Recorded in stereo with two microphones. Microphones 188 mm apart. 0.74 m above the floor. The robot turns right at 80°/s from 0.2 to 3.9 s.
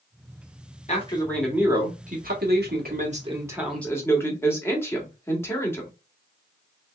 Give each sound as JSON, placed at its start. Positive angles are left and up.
{"t": 0.9, "sound": "a man speaking", "azimuth_deg": 135, "distance_m": 1.6}